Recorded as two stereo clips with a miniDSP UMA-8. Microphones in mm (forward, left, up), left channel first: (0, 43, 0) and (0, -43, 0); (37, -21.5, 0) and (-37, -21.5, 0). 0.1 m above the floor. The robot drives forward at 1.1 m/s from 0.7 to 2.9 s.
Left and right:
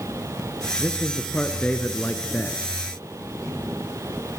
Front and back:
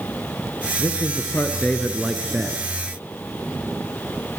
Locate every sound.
0.8 s a man speaking: 15° left, 1.8 m; by 2.6 s 155° left, 1.4 m